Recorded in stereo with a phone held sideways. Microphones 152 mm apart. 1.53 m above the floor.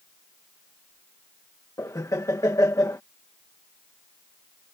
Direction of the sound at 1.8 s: 20° left (ahead or behind).